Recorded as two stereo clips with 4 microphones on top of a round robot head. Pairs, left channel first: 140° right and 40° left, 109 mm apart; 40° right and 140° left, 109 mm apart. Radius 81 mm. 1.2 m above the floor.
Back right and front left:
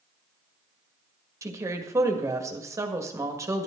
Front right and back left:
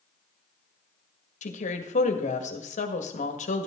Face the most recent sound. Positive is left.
turn(degrees=-25)